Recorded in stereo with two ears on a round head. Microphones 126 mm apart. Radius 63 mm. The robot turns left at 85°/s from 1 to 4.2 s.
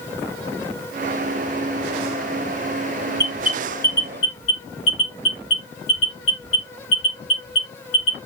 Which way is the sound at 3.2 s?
35° right (ahead or behind).